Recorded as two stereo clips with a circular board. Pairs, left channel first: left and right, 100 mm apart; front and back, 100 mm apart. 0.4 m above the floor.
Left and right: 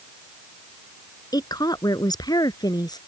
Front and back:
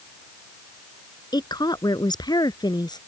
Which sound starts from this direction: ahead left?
A woman speaking, at 1.3 s.